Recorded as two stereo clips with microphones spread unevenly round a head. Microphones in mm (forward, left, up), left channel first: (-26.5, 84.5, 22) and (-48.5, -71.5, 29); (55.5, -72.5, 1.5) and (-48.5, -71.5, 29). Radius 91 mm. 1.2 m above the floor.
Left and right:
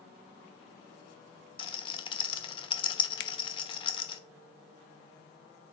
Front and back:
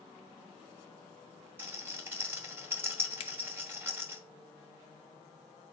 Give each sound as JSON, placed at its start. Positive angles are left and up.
{"t": 1.6, "sound": "a rattle", "azimuth_deg": 130, "distance_m": 1.1}
{"t": 3.2, "sound": "a finger snap", "azimuth_deg": 65, "distance_m": 0.5}